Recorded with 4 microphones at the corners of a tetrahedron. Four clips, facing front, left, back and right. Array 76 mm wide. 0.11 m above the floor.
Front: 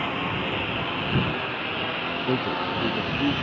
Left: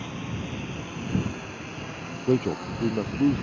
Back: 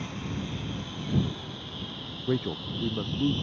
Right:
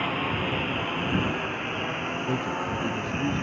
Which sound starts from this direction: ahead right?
A lawn mower, at 0.0 s.